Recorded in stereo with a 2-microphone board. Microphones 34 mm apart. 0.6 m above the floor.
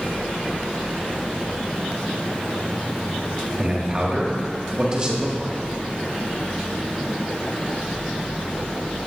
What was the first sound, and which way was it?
A man speaking, 25° right (ahead or behind).